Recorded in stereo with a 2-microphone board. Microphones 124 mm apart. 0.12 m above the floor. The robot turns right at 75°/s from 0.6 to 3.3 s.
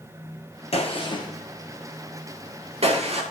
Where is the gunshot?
55° left (ahead or behind), 1.5 m; by 3.2 s 55° right (ahead or behind), 1.5 m.